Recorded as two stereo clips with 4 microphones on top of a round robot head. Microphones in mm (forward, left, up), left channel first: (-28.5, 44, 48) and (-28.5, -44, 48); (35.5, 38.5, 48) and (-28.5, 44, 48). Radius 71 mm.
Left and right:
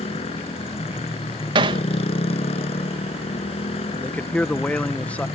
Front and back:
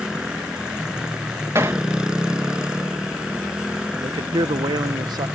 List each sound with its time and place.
0.0 s a motorcycle: 95° left
1.6 s hammering: 120° right
4.0 s a man speaking: 165° left